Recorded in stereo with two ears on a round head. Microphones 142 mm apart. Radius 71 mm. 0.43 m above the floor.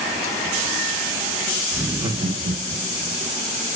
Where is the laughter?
5° right (ahead or behind), 0.8 m; by 3.1 s 55° right (ahead or behind), 1.9 m.